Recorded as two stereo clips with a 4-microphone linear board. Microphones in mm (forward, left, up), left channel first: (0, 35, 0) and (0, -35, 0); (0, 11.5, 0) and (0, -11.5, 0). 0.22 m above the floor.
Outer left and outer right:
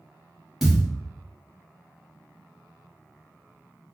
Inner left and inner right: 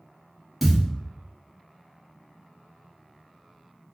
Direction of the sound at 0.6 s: 5° right (ahead or behind).